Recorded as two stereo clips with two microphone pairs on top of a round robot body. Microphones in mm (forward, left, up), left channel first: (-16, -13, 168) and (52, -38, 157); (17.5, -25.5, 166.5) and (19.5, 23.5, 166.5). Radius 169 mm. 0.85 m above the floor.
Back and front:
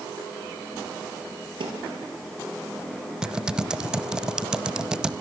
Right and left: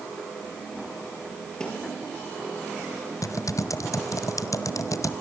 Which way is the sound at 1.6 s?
20° right.